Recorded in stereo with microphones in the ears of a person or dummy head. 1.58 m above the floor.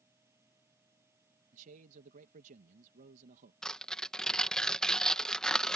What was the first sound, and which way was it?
A fan, 15° right (ahead or behind).